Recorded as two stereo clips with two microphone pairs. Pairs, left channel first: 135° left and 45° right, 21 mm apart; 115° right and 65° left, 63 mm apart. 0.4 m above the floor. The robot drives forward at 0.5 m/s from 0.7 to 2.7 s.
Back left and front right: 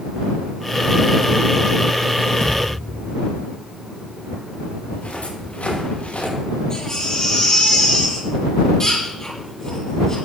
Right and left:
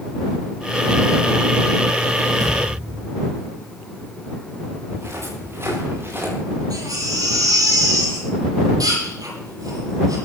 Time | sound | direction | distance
2.4 | a thud | 70° left | 9 m
4.9 | footsteps | 110° left | 10 m
6.7 | a baby crying | 70° left | 9.5 m